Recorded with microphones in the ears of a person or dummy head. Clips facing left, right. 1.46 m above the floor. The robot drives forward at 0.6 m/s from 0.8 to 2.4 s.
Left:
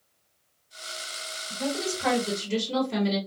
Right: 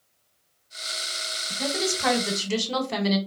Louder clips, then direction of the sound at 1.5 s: Right 1 dB; 50° right (ahead or behind).